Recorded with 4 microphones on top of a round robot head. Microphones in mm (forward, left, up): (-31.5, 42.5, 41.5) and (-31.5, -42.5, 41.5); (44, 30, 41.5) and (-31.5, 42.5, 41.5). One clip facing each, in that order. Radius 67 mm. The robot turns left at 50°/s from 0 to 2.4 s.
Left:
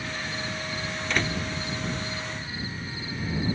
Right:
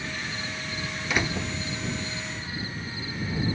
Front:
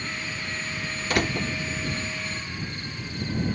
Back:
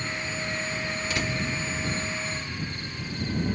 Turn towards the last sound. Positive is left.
turn(degrees=-70)